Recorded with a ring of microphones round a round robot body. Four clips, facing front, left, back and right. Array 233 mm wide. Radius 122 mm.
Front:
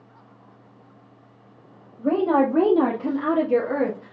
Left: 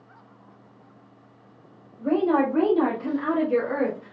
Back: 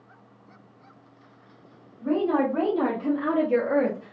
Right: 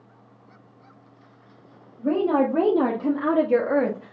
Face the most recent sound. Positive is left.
turn(degrees=-105)